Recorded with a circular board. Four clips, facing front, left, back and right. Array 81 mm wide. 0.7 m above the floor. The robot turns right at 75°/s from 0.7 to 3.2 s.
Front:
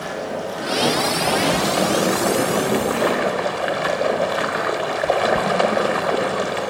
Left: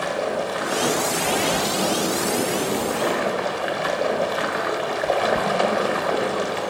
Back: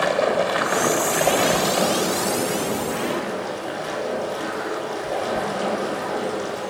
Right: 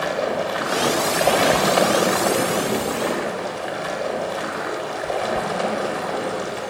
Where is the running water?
165° right, 1.4 m; by 6.7 s 20° left, 1.4 m.